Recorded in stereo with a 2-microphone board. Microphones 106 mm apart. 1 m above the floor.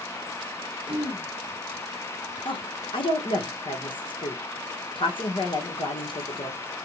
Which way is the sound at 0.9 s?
10° right (ahead or behind).